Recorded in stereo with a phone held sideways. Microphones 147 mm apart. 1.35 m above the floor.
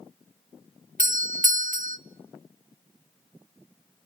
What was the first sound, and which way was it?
A doorbell, 65° right (ahead or behind).